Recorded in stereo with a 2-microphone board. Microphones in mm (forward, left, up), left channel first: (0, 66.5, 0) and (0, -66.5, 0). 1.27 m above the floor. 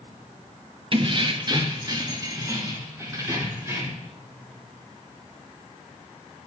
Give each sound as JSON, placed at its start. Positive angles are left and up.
{"t": 0.9, "sound": "keys jangling", "side_deg": -40, "distance_m": 0.8}